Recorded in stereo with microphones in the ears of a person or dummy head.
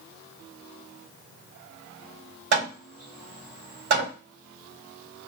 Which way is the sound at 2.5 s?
60° right (ahead or behind).